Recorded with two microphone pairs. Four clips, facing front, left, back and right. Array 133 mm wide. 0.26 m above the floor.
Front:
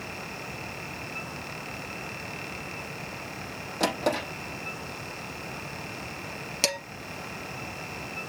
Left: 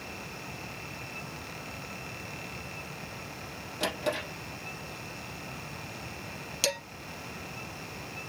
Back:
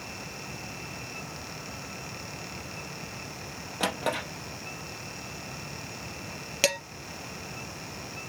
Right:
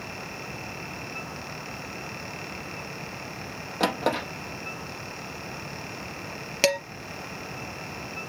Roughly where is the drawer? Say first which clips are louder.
Right 6 dB, front 3 dB; right.